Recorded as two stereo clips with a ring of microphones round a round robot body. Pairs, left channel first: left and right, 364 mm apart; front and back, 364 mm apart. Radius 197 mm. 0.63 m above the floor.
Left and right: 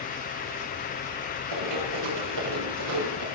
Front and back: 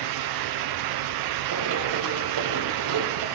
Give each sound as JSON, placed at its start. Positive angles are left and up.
{"t": 1.5, "sound": "running footsteps", "azimuth_deg": -140, "distance_m": 6.0}